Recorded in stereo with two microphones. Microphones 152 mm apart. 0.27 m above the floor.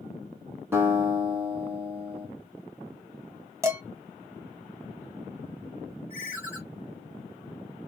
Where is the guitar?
15° right (ahead or behind), 1.9 m.